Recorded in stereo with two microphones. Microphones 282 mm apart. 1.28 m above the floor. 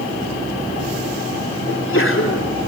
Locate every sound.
1.7 s a sneeze: 45° left (ahead or behind), 3 m